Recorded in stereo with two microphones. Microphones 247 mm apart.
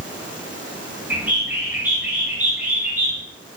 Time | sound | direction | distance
1.1 | a bird | 10° right (ahead or behind) | 5.5 m